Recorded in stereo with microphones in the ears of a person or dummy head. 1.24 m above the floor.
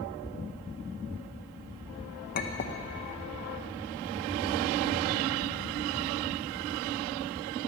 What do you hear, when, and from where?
2.4 s a clink: 40° left (ahead or behind), 0.7 m